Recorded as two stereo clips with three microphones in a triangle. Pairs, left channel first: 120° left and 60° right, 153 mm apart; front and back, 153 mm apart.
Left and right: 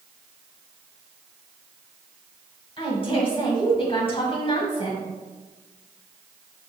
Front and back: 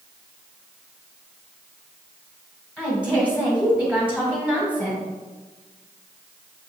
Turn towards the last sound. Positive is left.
turn(degrees=105)